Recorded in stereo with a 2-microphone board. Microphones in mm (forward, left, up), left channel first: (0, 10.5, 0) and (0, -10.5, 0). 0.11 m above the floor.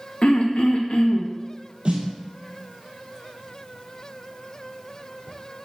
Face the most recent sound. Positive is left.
turn(degrees=-60)  # may be behind; listen again after turning